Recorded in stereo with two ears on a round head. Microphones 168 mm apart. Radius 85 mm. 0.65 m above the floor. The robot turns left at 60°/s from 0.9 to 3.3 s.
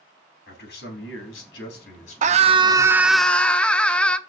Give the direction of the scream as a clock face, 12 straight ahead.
4 o'clock.